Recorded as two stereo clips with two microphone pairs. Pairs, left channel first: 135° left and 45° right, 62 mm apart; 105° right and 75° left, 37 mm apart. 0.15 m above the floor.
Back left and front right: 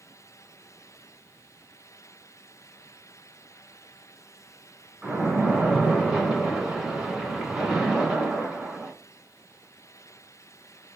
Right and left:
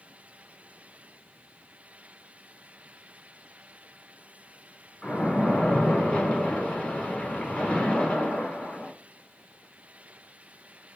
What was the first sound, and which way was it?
A splash, 110° right.